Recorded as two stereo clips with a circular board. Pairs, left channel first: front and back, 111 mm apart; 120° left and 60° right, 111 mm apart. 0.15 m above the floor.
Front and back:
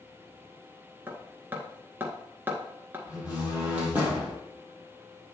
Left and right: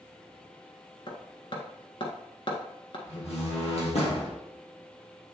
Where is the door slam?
105° left, 3.5 m.